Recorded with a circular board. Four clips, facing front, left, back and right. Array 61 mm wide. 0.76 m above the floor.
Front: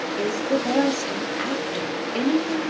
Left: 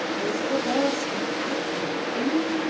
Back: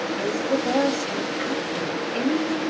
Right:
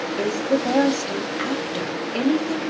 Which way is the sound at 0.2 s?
55° right.